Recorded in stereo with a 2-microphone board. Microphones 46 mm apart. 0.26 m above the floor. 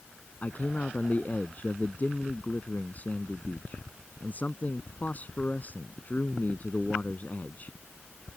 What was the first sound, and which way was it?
A man speaking, 35° left (ahead or behind).